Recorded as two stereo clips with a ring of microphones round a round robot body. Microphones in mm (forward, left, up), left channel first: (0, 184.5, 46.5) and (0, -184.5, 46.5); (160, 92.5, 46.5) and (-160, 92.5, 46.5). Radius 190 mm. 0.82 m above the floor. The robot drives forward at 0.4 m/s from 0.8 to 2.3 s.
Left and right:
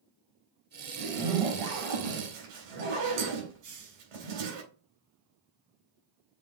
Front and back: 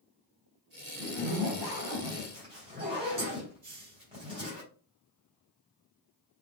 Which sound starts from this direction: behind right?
A hiss, at 3.6 s.